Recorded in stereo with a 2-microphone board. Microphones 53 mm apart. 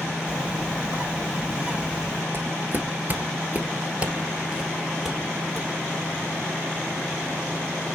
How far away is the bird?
About 1.6 m.